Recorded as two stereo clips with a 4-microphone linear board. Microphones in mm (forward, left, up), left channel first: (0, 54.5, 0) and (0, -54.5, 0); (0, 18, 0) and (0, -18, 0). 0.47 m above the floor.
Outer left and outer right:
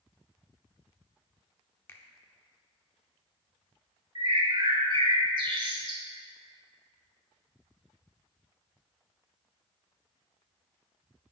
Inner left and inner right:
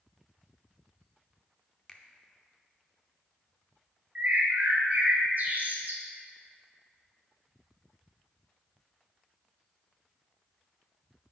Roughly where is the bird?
Right.